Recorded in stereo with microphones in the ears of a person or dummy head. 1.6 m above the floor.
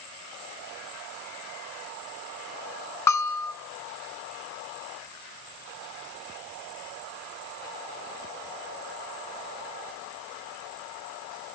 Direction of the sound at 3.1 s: 15° left (ahead or behind).